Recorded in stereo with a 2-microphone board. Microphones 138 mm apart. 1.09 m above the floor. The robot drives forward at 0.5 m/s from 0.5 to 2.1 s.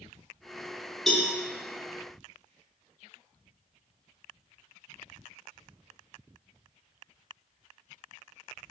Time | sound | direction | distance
1.1 | a cowbell | centre (ahead or behind) | 0.6 m